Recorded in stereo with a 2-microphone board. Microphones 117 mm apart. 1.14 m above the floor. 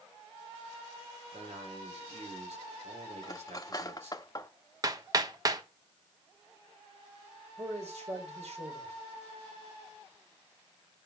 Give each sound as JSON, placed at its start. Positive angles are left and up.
{"t": 1.3, "sound": "a man speaking", "side_deg": -70, "distance_m": 3.5}
{"t": 3.2, "sound": "cutlery clinking", "side_deg": 30, "distance_m": 0.9}
{"t": 4.8, "sound": "hammering", "side_deg": -30, "distance_m": 1.0}
{"t": 7.6, "sound": "a man speaking", "side_deg": -70, "distance_m": 5.0}